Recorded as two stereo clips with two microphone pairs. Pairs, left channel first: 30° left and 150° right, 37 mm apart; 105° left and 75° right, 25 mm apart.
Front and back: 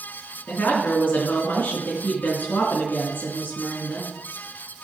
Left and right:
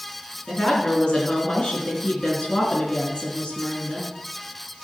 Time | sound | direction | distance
0.5 | a woman speaking | 55° left | 3.5 m